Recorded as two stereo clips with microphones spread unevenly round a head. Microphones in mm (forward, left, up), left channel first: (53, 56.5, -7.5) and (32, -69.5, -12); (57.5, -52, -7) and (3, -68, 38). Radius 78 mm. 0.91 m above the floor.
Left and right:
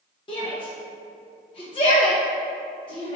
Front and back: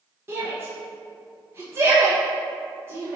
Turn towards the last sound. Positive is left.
turn(degrees=105)